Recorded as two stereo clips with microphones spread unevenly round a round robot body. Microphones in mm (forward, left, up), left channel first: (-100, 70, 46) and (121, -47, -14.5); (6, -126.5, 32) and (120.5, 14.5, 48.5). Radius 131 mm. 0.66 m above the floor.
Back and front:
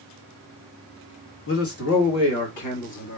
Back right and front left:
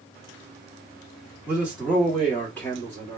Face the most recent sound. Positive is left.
turn(degrees=160)